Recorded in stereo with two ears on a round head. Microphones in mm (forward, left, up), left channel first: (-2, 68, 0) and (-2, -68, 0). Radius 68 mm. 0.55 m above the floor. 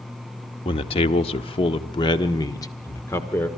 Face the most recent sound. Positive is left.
turn(degrees=15)  # may be behind; listen again after turning